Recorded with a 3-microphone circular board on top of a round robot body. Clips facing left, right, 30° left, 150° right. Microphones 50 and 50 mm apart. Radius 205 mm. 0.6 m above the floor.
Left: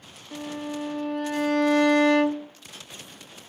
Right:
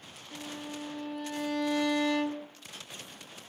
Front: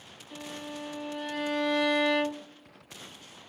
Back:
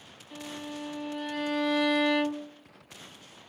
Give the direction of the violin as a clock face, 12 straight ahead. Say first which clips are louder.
Left 8 dB, back 1 dB; 8 o'clock.